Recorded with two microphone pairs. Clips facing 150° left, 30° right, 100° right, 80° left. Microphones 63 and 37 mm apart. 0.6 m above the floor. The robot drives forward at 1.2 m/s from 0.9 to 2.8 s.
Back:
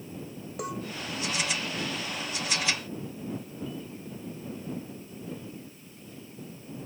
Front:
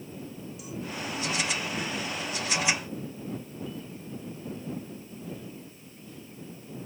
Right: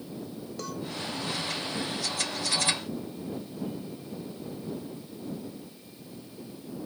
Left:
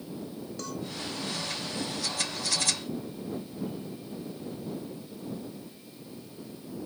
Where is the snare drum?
No snare drum in this recording.